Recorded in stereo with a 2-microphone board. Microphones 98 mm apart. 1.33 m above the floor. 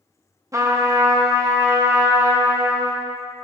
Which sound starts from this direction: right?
A trumpet, at 0.5 s.